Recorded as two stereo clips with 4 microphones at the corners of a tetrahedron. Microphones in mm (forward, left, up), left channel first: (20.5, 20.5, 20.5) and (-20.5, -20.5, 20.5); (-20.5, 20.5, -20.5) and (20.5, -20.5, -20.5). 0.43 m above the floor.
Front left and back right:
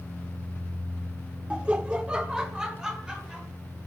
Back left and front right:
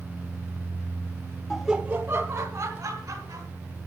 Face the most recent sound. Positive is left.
turn(degrees=-55)